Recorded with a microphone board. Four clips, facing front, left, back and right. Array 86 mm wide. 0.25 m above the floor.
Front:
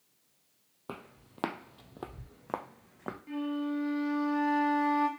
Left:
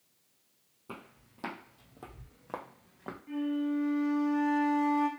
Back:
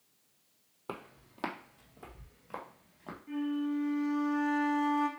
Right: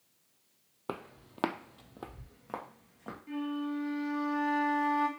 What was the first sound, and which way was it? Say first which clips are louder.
Footsteps: right 7 dB, back 1 dB; 95° right.